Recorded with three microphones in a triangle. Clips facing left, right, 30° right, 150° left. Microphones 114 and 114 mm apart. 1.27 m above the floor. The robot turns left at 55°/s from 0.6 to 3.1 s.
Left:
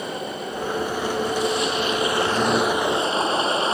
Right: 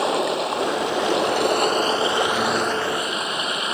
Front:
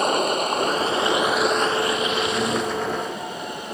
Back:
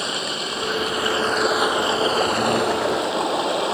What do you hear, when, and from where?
0.0 s running water: 75° right; by 3.8 s 150° left